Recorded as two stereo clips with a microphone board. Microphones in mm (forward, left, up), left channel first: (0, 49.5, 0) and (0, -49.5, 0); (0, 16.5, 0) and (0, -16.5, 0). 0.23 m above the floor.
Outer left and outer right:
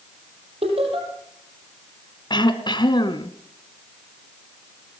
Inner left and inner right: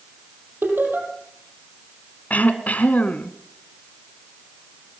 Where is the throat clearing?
55° left (ahead or behind), 1.4 m.